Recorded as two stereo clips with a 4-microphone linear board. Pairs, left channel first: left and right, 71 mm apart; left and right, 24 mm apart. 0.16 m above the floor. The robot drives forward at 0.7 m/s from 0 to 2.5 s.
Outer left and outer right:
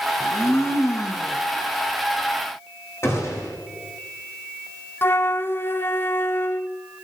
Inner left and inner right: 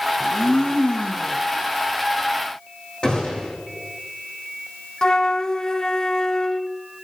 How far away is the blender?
About 2 m.